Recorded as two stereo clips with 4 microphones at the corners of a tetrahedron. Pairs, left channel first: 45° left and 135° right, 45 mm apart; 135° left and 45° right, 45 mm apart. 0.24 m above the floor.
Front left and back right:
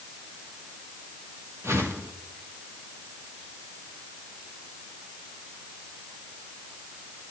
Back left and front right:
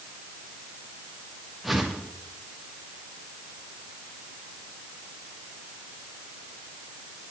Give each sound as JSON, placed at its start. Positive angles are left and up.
{"t": 1.6, "sound": "a whoosh", "azimuth_deg": -135, "distance_m": 2.5}